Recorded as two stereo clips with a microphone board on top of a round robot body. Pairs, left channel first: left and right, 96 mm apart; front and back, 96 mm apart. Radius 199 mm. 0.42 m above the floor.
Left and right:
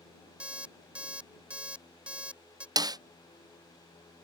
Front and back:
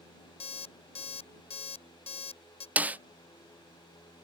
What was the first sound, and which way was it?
An alarm clock, 10° right.